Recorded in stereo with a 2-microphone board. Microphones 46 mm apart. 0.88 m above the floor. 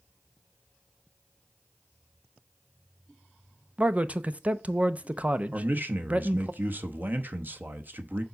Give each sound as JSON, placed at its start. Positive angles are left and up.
{"t": 3.8, "sound": "a man speaking", "side_deg": -30, "distance_m": 0.6}
{"t": 5.5, "sound": "a man speaking", "side_deg": -45, "distance_m": 0.9}